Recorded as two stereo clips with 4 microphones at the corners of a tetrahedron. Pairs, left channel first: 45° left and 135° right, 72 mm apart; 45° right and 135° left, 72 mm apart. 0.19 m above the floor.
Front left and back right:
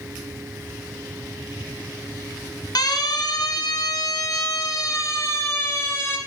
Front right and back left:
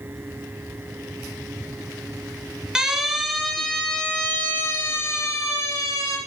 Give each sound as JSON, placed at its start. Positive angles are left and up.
{"t": 2.8, "sound": "a siren", "azimuth_deg": 55, "distance_m": 2.0}